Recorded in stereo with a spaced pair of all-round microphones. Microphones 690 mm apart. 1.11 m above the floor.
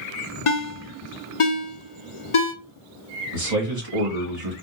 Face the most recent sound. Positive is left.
turn(degrees=-75)  # may be behind; listen again after turning